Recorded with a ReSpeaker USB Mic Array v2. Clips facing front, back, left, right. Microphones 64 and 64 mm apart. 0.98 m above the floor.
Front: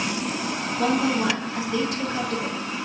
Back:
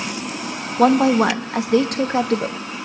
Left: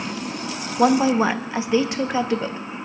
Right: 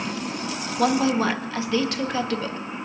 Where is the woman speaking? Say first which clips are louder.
Back 9 dB, left 4 dB; 160° left, 1.0 m.